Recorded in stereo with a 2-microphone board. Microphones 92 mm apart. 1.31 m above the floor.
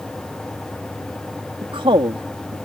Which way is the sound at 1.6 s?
65° right (ahead or behind).